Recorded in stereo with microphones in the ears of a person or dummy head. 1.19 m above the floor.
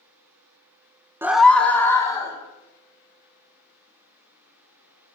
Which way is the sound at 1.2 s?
10° right (ahead or behind).